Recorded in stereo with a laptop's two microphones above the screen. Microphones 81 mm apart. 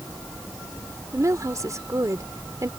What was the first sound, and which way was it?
A woman speaking, 40° right (ahead or behind).